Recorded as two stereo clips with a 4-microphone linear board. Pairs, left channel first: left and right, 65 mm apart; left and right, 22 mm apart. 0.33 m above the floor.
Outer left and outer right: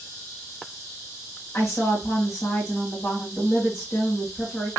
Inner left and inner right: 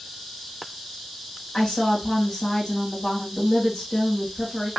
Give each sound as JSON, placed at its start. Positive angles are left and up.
{"t": 1.5, "sound": "a woman speaking", "side_deg": 40, "distance_m": 2.0}